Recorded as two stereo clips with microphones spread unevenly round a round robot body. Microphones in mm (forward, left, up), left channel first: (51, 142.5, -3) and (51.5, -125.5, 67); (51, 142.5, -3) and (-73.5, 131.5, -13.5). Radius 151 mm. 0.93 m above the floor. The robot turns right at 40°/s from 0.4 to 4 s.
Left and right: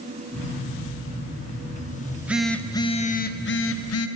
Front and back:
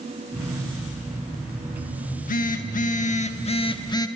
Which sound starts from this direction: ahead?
A phone buzzing, at 2.0 s.